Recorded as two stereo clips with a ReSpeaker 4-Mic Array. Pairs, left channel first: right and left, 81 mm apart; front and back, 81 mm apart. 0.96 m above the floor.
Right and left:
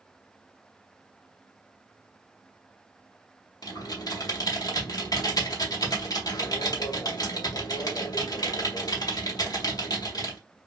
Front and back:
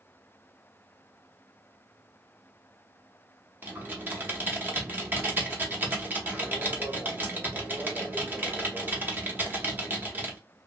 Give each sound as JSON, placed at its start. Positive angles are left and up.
{"t": 3.6, "sound": "typing on a keyboard", "azimuth_deg": -115, "distance_m": 0.8}